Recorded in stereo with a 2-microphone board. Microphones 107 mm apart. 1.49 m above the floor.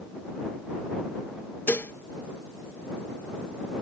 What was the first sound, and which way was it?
Dishes clattering, 20° left (ahead or behind).